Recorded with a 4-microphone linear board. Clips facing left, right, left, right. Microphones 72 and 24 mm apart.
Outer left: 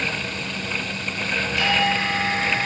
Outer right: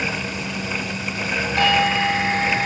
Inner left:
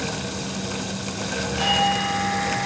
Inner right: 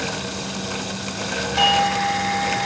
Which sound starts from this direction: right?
A doorbell, at 1.6 s.